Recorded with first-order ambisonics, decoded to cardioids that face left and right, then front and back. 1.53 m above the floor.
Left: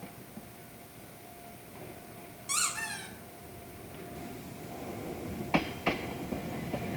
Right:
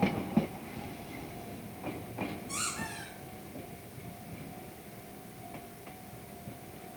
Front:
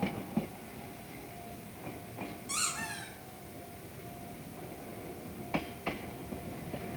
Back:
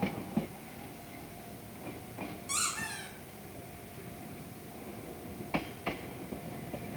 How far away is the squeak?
About 0.7 m.